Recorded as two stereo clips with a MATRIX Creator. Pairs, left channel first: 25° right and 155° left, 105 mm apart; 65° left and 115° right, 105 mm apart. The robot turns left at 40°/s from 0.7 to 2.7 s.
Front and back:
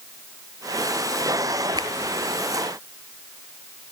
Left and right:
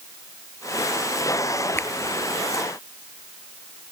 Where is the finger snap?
135° left, 2 m; by 1.9 s 130° left, 2 m.